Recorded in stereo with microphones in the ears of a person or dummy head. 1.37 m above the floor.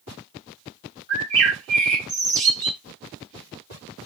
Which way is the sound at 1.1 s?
45° right (ahead or behind).